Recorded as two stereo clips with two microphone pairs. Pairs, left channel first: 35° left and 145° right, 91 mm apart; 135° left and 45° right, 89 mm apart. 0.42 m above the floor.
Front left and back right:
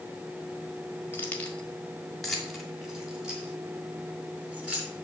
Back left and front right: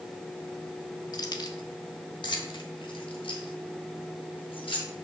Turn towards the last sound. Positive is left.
turn(degrees=140)